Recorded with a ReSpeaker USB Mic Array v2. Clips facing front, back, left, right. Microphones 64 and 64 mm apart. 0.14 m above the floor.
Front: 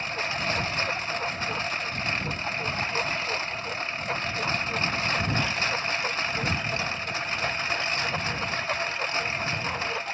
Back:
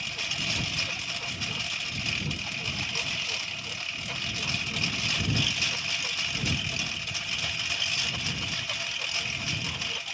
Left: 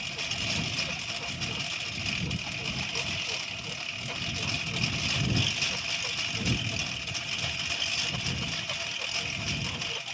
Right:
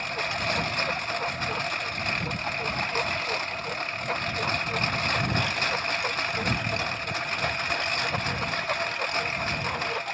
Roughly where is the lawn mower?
Ahead right.